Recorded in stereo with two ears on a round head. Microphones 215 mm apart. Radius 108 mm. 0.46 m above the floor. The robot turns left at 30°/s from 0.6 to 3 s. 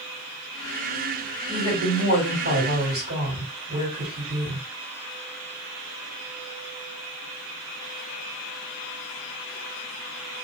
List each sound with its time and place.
1.5 s a woman speaking: 80° right, 2 m; by 4.7 s 125° right, 2 m